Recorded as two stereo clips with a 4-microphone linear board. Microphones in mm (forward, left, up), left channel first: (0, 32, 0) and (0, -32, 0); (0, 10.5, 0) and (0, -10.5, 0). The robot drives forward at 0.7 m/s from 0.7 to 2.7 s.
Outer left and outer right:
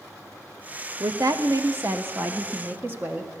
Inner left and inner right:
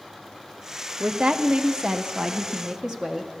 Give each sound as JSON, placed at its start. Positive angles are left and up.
{"t": 1.0, "sound": "a woman speaking", "side_deg": -70, "distance_m": 1.0}